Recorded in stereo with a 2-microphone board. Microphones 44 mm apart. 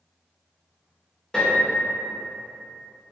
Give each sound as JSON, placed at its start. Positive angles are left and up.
{"t": 1.3, "sound": "a piano", "side_deg": 15, "distance_m": 0.9}